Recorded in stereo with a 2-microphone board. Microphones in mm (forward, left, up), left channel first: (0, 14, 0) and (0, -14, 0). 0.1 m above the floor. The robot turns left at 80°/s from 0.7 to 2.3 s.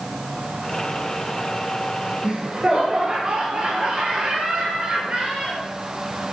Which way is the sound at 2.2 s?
25° right (ahead or behind).